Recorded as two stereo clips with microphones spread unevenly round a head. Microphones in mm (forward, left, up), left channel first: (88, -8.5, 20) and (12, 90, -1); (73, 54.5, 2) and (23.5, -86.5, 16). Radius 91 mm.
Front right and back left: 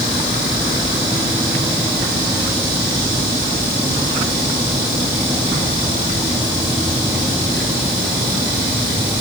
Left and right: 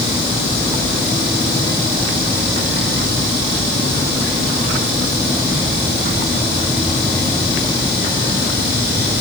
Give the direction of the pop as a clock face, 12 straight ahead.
I don't hear a pop.